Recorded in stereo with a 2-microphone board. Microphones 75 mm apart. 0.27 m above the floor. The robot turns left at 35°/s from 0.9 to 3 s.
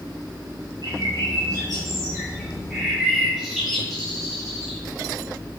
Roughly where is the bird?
Right.